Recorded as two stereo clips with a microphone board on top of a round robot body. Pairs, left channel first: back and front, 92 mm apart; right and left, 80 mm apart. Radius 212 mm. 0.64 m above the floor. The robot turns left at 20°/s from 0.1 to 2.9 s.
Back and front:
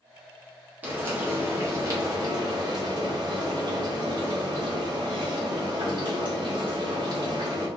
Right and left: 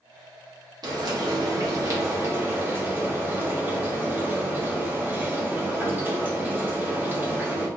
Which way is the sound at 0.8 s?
70° left.